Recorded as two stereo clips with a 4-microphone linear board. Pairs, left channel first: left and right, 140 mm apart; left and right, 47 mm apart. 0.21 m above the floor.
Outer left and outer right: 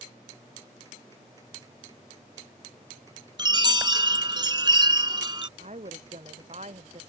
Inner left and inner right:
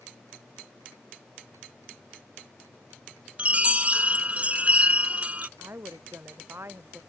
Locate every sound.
3.4 s a chime: 30° right (ahead or behind)
5.6 s a woman speaking: 55° right (ahead or behind)